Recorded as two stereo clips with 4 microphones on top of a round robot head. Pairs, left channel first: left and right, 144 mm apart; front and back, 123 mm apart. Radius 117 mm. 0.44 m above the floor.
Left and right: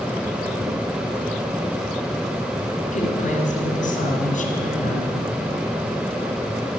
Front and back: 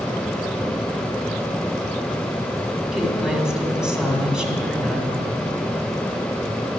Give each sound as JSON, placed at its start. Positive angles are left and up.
{"t": 2.9, "sound": "a woman speaking", "azimuth_deg": 90, "distance_m": 1.9}